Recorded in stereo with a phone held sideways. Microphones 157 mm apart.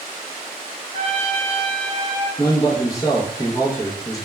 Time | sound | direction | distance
0.9 | a trumpet | 55° left (ahead or behind) | 0.9 m
2.4 | a man speaking | 20° left (ahead or behind) | 0.6 m